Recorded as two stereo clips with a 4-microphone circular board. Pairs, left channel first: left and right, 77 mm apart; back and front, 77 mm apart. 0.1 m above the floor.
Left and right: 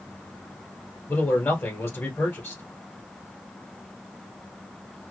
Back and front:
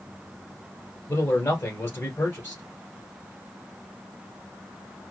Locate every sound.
1.1 s a man speaking: 135° left, 1.5 m